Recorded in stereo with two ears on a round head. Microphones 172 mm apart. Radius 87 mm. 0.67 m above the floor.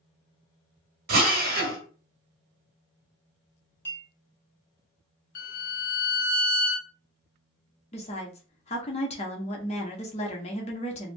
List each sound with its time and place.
1.1 s a drill: 55° right (ahead or behind), 1.2 m
3.9 s a clink: 10° left (ahead or behind), 1.5 m
5.3 s a violin: 45° left (ahead or behind), 0.7 m
7.9 s a woman speaking: 35° left (ahead or behind), 0.8 m